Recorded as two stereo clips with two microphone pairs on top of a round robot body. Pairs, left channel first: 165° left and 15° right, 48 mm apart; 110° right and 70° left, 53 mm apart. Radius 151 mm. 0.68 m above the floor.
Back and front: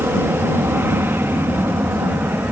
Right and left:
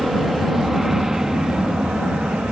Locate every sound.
0.0 s an aircraft: 10° right; by 2.5 s 10° left